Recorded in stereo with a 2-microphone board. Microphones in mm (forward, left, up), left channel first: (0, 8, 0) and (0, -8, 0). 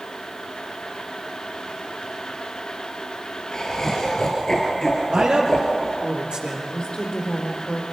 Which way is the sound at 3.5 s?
40° left (ahead or behind).